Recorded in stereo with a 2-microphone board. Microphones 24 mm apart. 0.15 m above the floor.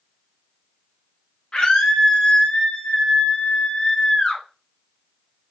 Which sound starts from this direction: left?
A scream, at 1.5 s.